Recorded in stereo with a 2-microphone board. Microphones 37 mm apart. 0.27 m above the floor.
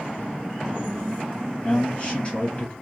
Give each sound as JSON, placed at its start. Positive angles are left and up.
{"t": 1.6, "sound": "a man speaking", "side_deg": 40, "distance_m": 1.7}